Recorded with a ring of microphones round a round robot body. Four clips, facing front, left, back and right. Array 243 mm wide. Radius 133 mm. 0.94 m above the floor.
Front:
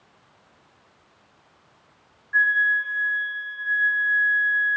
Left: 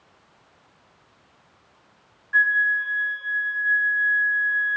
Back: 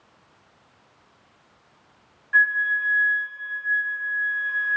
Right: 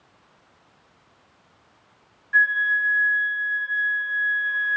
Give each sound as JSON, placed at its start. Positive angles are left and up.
{"t": 2.3, "sound": "a flute", "azimuth_deg": -170, "distance_m": 3.5}